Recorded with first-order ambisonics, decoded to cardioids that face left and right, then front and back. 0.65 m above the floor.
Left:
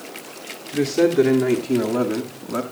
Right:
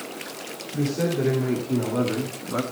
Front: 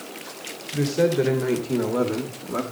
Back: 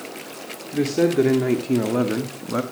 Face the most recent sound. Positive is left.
turn(degrees=180)